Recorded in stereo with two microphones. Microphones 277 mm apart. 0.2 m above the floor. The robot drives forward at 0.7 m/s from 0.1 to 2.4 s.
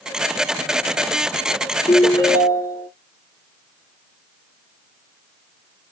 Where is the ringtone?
15° left (ahead or behind), 1.0 m.